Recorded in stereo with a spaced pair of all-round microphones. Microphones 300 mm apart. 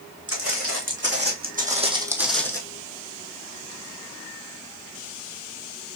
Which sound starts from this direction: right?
Footsteps, at 0.3 s.